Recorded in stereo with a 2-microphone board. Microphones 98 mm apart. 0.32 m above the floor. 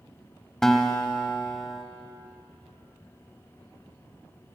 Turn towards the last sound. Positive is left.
turn(degrees=5)  # may be behind; listen again after turning